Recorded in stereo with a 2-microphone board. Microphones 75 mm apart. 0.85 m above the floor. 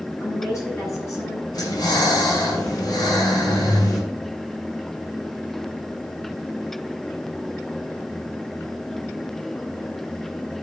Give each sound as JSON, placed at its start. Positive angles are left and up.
{"t": 0.2, "sound": "a woman speaking", "side_deg": 40, "distance_m": 7.5}
{"t": 1.5, "sound": "breathing", "side_deg": 55, "distance_m": 7.0}